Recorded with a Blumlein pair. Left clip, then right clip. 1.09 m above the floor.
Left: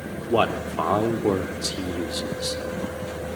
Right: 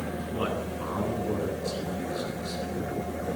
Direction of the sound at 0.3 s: 45° left.